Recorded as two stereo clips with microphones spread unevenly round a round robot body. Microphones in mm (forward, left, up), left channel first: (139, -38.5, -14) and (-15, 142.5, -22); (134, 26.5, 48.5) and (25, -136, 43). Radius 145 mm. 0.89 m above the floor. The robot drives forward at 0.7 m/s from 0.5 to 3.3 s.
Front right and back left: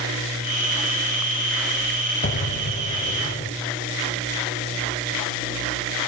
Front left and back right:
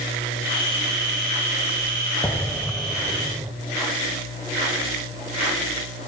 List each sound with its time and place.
2.2 s an explosion: 20° right, 1.3 m; by 3.5 s 50° right, 0.8 m